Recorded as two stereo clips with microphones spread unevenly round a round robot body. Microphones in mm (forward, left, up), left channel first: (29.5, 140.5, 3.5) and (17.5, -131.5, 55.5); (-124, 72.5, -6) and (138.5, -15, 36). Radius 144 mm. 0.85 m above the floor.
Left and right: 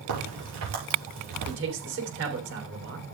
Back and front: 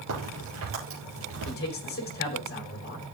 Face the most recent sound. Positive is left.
turn(degrees=-145)